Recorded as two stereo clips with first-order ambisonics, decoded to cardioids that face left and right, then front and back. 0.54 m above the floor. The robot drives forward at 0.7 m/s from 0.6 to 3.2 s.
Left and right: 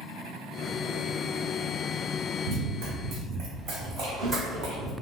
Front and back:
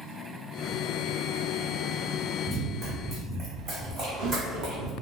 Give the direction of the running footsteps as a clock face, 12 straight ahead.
3 o'clock.